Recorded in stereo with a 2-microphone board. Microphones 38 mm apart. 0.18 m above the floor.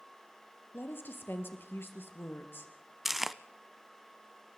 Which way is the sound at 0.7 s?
70° left (ahead or behind).